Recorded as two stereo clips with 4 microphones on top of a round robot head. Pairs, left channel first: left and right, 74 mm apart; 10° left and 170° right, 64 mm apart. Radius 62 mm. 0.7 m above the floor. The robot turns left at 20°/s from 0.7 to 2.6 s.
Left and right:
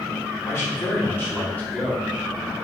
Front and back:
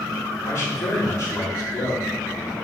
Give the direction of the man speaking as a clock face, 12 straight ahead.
11 o'clock.